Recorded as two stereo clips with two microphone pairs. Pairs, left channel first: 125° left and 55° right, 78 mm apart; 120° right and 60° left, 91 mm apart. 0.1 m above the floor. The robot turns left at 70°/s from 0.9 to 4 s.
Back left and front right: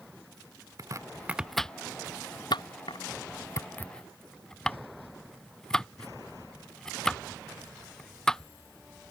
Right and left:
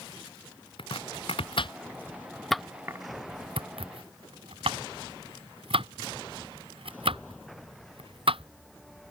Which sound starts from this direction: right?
Chopping, at 0.8 s.